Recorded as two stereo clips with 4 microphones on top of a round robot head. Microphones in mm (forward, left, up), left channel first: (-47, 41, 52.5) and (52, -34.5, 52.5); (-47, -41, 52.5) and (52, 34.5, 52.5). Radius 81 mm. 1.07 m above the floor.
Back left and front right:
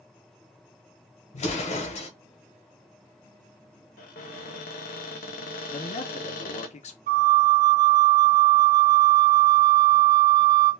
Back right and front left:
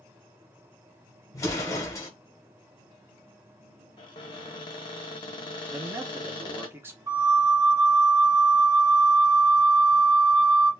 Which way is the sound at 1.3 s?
155° left.